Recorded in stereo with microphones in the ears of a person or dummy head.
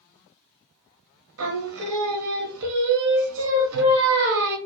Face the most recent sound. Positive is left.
turn(degrees=-75)  # may be behind; listen again after turning